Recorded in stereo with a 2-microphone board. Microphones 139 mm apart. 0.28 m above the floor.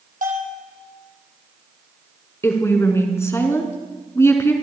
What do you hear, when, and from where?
0.2 s a bell: 75° right (ahead or behind), 3 m
2.4 s a woman speaking: 20° left (ahead or behind), 3 m